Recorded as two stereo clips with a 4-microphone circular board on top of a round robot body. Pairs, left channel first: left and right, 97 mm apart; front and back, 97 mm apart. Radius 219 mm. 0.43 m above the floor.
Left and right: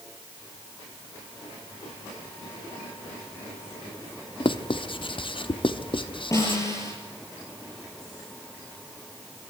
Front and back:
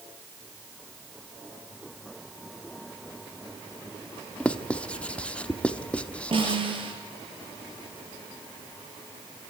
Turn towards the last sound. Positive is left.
turn(degrees=150)